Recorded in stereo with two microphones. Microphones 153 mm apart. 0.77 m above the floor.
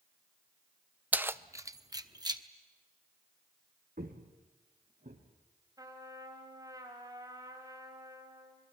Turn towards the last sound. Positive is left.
turn(degrees=-25)  # may be behind; listen again after turning